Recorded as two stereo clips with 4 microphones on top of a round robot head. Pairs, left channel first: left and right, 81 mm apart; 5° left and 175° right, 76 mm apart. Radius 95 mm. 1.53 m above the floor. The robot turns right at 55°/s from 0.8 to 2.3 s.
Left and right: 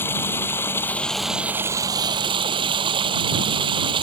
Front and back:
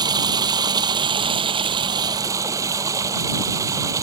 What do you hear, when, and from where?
0.0 s running water: 160° left; by 4.0 s 120° right